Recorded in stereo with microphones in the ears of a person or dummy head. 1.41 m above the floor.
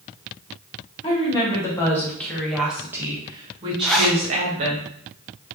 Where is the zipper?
Centre (ahead or behind), 0.6 m.